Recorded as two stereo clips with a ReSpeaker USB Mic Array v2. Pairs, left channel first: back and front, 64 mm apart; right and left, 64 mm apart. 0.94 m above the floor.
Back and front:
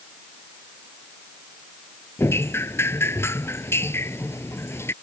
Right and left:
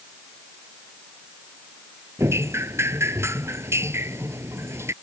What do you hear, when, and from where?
2.2 s dripping: 135° left